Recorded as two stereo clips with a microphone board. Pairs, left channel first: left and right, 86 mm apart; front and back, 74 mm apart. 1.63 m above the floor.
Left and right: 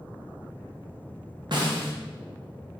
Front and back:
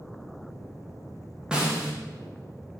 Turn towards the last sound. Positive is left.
turn(degrees=-105)